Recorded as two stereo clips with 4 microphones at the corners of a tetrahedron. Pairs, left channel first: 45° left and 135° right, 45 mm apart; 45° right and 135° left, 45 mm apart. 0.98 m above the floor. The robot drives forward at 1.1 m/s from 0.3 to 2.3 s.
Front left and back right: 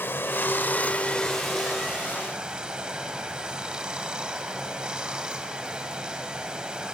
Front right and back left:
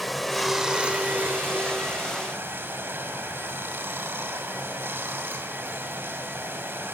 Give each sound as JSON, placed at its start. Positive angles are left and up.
{"t": 0.0, "sound": "running water", "azimuth_deg": 45, "distance_m": 1.1}